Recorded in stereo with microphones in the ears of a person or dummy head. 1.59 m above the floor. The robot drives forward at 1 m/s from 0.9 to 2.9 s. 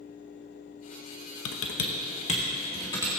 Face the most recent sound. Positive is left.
turn(degrees=25)  # may be behind; listen again after turning